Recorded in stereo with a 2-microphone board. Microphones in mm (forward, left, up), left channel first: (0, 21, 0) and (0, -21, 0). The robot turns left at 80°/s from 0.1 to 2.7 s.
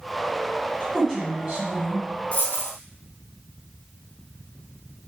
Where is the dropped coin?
140° left, 1.7 m; by 2.7 s 110° left, 1.7 m.